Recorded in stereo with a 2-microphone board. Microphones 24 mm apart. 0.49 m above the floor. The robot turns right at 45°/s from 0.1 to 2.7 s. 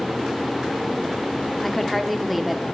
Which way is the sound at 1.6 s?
10° left (ahead or behind).